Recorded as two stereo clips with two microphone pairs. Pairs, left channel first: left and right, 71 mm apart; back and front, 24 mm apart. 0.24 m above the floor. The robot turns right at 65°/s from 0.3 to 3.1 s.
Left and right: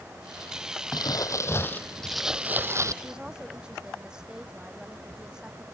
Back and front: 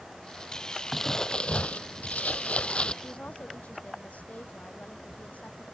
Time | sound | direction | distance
0.9 | crumpling | 95° left | ?
3.0 | a woman speaking | 175° right | ?